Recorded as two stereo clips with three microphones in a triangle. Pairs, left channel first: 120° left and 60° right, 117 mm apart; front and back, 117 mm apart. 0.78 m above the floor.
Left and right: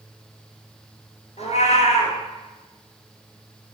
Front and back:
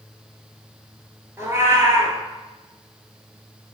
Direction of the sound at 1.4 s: 115° left.